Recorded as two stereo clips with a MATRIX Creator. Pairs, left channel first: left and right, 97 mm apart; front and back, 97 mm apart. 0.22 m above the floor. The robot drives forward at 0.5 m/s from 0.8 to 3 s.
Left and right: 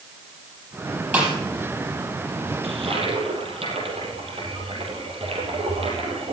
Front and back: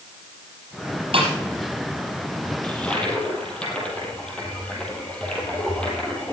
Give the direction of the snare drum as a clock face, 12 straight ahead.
5 o'clock.